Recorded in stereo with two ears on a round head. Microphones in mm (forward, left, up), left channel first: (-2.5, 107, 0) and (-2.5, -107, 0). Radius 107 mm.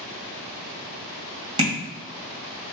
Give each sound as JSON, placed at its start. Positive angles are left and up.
{"t": 1.6, "sound": "tapping", "side_deg": -25, "distance_m": 2.0}